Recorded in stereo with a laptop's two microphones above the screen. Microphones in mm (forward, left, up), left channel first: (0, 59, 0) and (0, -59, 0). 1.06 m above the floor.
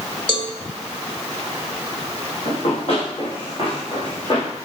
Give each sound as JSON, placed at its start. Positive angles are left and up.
{"t": 0.3, "sound": "a cowbell", "side_deg": 45, "distance_m": 1.7}
{"t": 2.5, "sound": "running footsteps", "side_deg": 55, "distance_m": 5.5}